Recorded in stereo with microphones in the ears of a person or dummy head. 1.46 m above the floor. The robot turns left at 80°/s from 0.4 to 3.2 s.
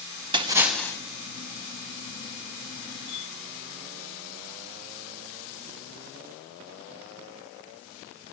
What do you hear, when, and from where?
0.3 s a splash: 160° right, 0.9 m; by 1.0 s 155° left, 0.9 m